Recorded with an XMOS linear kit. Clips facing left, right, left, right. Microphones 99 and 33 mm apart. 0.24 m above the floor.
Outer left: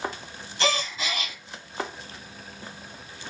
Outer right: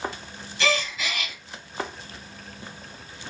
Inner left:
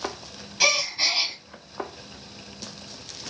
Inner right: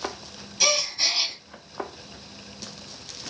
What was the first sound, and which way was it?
A gasp, 35° left (ahead or behind).